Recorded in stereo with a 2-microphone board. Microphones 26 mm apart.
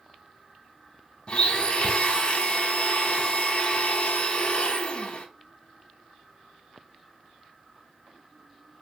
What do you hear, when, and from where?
1.3 s a blender: 35° left (ahead or behind), 0.7 m